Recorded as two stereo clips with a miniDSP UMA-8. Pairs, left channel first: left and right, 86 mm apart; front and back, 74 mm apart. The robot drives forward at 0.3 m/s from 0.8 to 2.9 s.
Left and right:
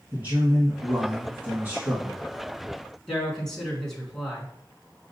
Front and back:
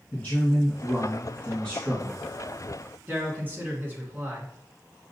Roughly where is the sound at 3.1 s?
Behind.